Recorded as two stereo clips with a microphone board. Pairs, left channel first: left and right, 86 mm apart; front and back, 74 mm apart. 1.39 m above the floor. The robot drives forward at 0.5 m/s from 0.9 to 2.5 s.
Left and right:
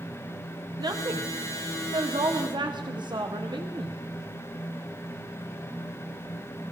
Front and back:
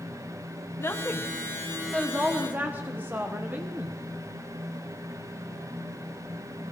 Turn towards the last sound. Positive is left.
turn(degrees=-115)